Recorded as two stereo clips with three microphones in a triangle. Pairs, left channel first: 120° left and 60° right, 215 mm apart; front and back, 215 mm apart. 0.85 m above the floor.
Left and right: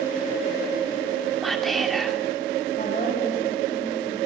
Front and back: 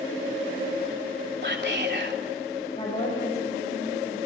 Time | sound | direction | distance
1.4 | whispering | 150° right | 3 m
2.8 | a woman speaking | 60° left | 5.5 m